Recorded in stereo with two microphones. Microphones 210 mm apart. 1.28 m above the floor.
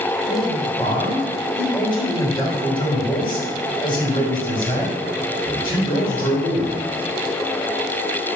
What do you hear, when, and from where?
0.2 s a man speaking: 20° left (ahead or behind), 3 m